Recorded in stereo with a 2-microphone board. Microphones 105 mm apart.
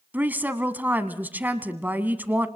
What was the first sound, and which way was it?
A woman speaking, 15° right (ahead or behind).